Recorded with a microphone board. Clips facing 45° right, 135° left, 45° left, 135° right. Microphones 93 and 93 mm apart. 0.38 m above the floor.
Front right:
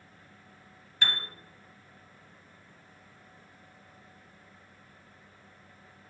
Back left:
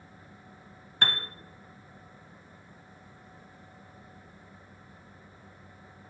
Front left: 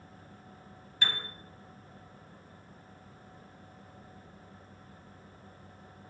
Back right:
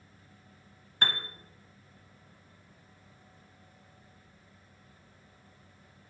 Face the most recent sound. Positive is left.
turn(degrees=180)